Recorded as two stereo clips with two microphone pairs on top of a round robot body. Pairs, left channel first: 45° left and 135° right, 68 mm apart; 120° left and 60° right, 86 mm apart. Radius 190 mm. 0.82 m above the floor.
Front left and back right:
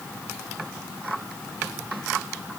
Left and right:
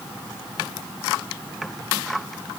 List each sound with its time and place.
Only background noise.